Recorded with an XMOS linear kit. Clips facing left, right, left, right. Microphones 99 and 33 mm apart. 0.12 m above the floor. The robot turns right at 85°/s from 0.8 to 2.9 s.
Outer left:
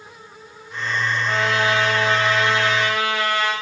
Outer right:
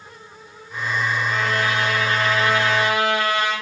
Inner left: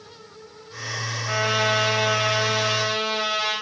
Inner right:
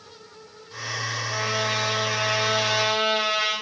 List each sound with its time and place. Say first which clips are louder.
1.3 s a trumpet: outer left 5 dB, inner left 6 dB; 55° left, 9 m; by 3.5 s 165° right, 9 m